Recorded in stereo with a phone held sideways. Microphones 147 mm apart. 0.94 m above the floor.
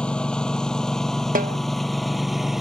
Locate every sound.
0.0 s a lawn mower: 5° left (ahead or behind); by 2.6 s centre (ahead or behind)
1.4 s a snare drum: 75° right (ahead or behind)